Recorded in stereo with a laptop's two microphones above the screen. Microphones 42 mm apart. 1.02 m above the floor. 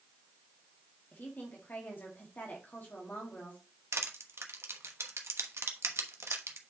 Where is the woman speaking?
45° left (ahead or behind), 1.7 m.